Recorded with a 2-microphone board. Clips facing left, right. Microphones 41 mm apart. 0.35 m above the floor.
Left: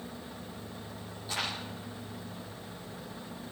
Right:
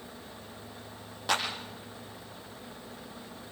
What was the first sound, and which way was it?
A clap, 75° right (ahead or behind).